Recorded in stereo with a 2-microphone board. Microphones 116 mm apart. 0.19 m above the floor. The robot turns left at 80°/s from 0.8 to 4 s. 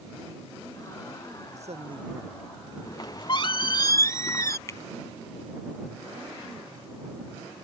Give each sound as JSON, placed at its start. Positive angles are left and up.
{"t": 1.5, "sound": "a man speaking", "azimuth_deg": -100}
{"t": 2.9, "sound": "a squeak", "azimuth_deg": 130}
{"t": 4.7, "sound": "a finger snap", "side_deg": 25}